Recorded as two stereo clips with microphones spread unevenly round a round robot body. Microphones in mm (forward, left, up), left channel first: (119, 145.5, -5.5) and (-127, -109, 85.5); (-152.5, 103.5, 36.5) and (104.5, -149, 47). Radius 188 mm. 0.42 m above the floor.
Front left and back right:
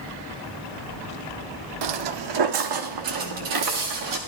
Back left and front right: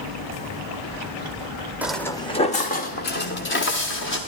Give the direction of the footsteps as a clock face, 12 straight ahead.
4 o'clock.